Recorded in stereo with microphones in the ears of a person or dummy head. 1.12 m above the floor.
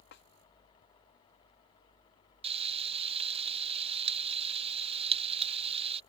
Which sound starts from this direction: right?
Frying, at 2.4 s.